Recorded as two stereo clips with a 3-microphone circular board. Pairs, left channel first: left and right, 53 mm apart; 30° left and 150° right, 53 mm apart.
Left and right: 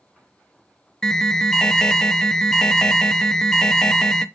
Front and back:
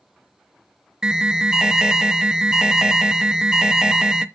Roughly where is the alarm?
Behind left.